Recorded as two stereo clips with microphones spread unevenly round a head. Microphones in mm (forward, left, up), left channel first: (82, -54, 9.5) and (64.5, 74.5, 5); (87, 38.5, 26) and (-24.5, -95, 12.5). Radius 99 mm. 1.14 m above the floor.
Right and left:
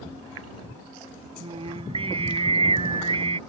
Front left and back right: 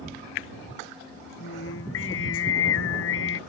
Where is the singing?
50° left.